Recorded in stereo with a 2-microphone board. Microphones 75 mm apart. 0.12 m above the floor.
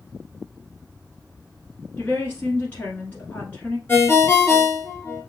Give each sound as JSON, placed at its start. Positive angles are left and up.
{"t": 2.0, "sound": "a woman speaking", "side_deg": 20, "distance_m": 1.2}
{"t": 3.9, "sound": "a ringtone", "side_deg": 30, "distance_m": 1.2}